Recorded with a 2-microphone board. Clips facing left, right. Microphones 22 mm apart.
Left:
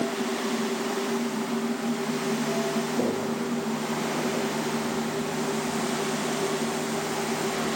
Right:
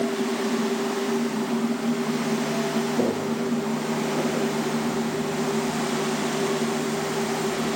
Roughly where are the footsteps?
Centre.